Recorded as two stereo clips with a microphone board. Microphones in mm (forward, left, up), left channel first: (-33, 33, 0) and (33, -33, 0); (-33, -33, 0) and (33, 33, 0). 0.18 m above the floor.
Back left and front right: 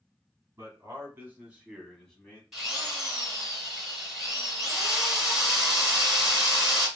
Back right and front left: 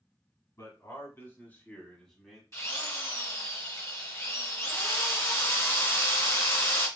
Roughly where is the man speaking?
Right.